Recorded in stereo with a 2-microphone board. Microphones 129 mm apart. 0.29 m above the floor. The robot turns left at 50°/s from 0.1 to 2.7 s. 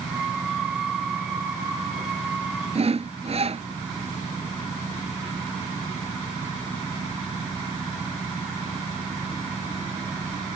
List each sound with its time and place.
2.8 s sawing: 50° right (ahead or behind)